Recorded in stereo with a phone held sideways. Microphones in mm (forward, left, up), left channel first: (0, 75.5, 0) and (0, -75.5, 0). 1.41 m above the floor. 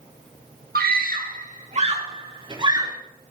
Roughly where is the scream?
Right.